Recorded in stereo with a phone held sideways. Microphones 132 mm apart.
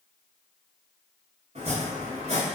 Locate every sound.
1.6 s chopping: 55° right (ahead or behind), 1.0 m